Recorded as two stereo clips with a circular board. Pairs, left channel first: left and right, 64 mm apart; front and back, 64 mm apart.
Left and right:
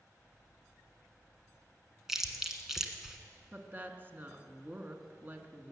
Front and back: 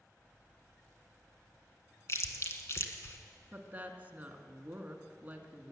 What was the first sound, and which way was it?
Chewing, 10° right.